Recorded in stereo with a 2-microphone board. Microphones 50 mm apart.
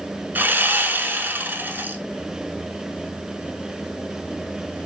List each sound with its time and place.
0.3 s sawing: 45° right (ahead or behind), 0.7 m